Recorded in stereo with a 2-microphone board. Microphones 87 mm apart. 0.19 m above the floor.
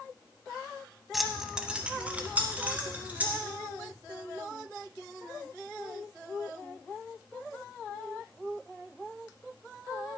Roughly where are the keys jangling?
Centre.